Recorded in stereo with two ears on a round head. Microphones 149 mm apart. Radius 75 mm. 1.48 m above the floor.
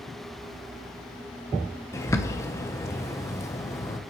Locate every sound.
1.9 s a bird: 15° left (ahead or behind), 0.8 m